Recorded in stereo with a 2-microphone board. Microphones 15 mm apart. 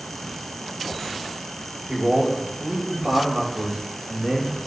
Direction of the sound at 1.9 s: 80° right.